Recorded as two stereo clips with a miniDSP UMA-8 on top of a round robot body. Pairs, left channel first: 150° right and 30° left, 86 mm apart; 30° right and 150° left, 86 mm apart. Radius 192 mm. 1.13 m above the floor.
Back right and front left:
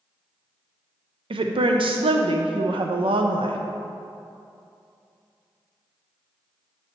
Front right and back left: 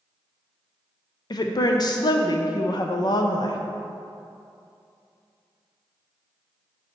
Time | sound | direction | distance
1.3 | a woman speaking | 10° left | 0.5 m